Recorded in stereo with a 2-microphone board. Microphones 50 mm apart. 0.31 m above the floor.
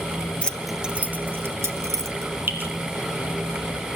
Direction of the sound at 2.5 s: 45° right (ahead or behind).